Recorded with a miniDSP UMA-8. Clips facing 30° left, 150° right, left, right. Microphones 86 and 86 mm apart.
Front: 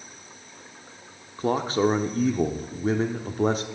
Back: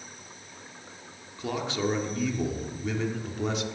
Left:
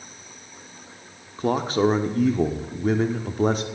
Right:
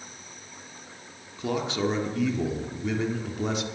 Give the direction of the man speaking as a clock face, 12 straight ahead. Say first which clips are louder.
Front 7 dB, left 6 dB; 10 o'clock.